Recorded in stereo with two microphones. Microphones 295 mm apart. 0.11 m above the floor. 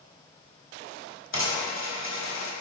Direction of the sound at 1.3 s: 45° left (ahead or behind).